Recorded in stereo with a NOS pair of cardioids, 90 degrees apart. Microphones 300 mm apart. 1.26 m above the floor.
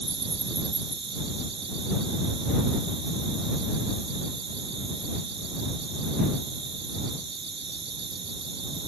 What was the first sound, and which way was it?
An insect, 40° right.